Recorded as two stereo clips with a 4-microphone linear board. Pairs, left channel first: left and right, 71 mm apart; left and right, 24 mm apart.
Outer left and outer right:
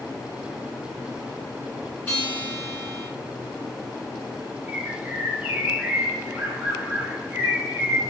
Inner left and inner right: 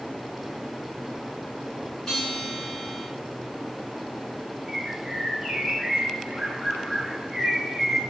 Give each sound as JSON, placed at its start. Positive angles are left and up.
{"t": 2.1, "sound": "a guitar", "side_deg": 20, "distance_m": 1.5}
{"t": 4.7, "sound": "a bird", "side_deg": -15, "distance_m": 0.7}